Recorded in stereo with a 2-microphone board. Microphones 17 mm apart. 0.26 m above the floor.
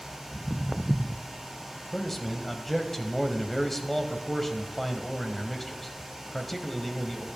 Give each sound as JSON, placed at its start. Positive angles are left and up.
{"t": 0.3, "sound": "footsteps", "side_deg": -5, "distance_m": 1.2}
{"t": 1.9, "sound": "a man speaking", "side_deg": 15, "distance_m": 1.4}